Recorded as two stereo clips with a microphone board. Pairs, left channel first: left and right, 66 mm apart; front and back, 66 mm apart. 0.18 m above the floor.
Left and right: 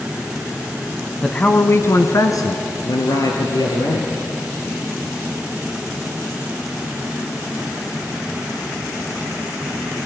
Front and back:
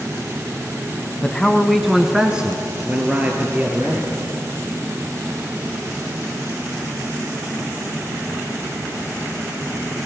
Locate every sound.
1.2 s a man speaking: 20° left, 1.0 m; by 4.1 s 110° left, 4 m